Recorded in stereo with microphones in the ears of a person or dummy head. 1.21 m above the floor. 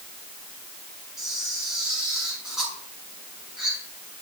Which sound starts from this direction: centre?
A camera shutter, at 1.2 s.